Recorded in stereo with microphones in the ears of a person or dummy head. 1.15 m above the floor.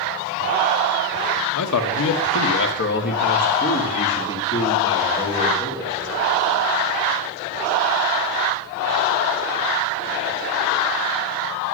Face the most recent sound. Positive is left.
turn(degrees=15)  # may be behind; listen again after turning